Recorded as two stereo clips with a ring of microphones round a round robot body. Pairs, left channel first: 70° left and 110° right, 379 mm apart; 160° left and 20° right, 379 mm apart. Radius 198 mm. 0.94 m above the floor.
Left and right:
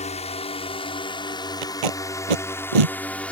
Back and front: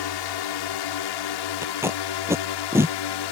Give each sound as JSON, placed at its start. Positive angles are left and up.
{"t": 0.0, "sound": "a drone", "azimuth_deg": 140}
{"t": 1.6, "sound": "tape being pulled", "azimuth_deg": -105}